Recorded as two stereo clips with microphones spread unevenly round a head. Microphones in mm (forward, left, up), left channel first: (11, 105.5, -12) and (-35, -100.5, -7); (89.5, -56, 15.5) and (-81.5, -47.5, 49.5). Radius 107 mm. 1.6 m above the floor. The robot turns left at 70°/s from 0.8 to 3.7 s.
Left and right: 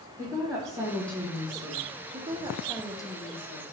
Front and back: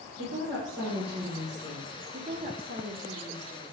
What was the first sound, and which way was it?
A woman speaking, 160° right.